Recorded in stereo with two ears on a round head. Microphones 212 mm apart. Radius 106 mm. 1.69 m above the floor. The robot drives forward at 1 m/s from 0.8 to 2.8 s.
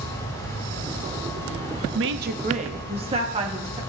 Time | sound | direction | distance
1.9 | a woman speaking | 60° right (ahead or behind) | 0.6 m